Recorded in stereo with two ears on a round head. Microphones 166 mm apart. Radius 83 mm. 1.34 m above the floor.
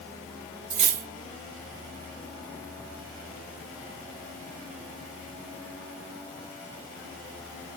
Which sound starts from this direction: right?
Cutlery clinking, at 0.7 s.